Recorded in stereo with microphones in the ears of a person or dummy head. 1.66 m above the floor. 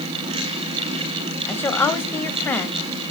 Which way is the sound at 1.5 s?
10° left (ahead or behind).